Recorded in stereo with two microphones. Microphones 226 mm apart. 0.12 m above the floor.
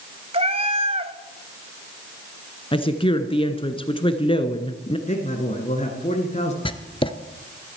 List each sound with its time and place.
0.3 s a cat meowing: 25° right (ahead or behind), 0.6 m
2.7 s a woman speaking: 25° left (ahead or behind), 1.2 m
5.1 s a man speaking: 30° left (ahead or behind), 1.7 m
6.7 s writing: 25° left (ahead or behind), 0.7 m